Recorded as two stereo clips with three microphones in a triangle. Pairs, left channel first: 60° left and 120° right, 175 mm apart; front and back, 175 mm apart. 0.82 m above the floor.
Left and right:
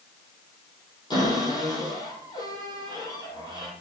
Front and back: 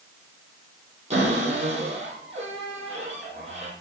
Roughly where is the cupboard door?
Behind left.